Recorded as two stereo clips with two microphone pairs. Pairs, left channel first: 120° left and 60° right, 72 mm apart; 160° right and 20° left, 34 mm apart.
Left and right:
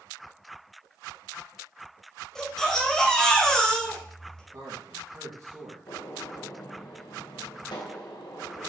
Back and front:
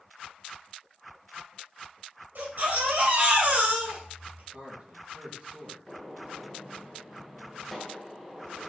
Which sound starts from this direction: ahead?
A man speaking, at 4.5 s.